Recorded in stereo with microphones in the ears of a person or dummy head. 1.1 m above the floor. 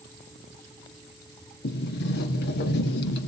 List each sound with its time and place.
1.6 s a sliding door: 60° left (ahead or behind), 1.4 m